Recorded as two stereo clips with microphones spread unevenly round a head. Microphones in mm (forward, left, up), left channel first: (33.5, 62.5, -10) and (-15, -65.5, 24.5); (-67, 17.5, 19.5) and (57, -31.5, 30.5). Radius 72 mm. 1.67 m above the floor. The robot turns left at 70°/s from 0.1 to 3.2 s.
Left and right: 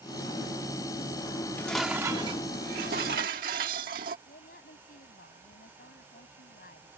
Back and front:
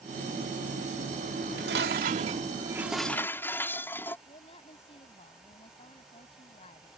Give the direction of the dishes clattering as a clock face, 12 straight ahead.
12 o'clock.